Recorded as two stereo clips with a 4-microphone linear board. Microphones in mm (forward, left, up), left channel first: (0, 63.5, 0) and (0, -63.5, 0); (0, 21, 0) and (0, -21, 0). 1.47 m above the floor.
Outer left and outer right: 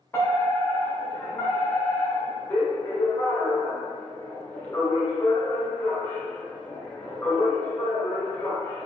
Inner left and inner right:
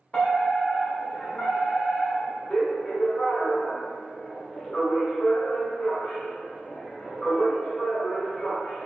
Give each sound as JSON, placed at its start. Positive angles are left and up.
{"t": 0.1, "sound": "a fire alarm", "side_deg": 15, "distance_m": 1.1}